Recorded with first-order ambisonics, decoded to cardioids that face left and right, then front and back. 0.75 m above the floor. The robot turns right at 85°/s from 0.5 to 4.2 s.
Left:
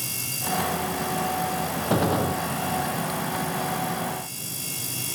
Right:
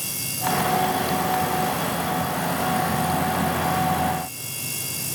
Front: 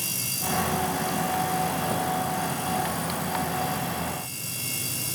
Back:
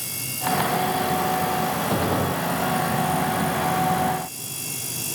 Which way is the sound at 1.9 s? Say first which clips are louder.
Left 1 dB, back 3 dB; 110° left.